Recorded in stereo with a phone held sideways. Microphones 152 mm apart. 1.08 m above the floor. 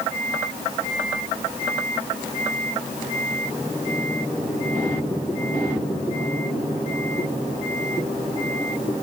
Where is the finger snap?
I don't hear a finger snap.